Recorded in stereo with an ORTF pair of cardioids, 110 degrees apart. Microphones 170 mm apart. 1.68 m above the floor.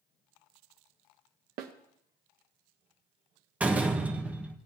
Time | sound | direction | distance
1.6 | a snare drum | 65° right | 1.1 m
3.6 | a door slam | 10° right | 1.3 m